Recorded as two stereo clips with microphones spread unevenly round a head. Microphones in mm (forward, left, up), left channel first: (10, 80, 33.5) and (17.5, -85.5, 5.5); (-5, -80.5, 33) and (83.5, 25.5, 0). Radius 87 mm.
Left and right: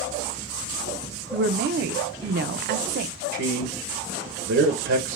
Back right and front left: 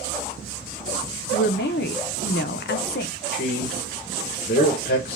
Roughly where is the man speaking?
Right.